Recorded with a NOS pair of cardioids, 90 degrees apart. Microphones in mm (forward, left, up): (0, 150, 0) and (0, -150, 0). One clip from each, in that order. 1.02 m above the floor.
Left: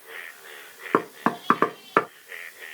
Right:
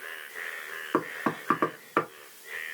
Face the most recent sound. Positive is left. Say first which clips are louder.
# left 5 dB
turn(degrees=35)